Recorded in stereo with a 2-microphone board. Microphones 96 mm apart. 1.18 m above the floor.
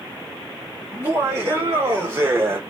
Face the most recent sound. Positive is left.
turn(degrees=-25)  # may be behind; listen again after turning